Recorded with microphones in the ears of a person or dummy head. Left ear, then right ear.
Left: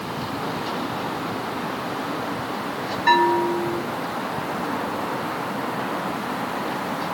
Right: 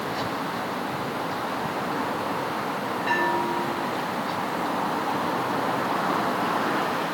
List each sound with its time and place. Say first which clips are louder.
3.1 s a bell: left 7 dB; 55° left (ahead or behind), 1.2 m